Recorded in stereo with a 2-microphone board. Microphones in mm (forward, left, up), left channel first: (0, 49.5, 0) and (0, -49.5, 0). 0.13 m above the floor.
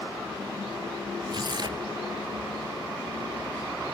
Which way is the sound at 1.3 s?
50° right (ahead or behind).